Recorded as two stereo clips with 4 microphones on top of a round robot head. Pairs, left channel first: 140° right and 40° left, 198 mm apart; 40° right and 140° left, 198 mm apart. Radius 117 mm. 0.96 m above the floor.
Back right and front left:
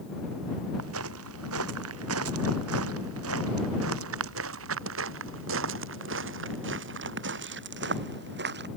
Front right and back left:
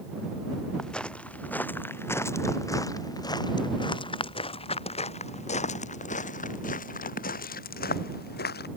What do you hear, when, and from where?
0.8 s footsteps: 50° left; by 8.7 s straight ahead